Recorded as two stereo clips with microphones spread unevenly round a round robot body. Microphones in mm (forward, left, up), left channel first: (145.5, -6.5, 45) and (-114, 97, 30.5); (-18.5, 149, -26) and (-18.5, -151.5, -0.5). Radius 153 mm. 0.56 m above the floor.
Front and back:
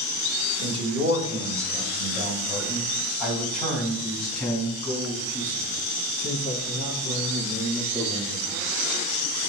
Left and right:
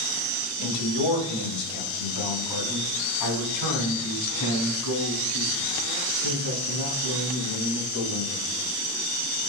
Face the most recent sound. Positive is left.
turn(degrees=60)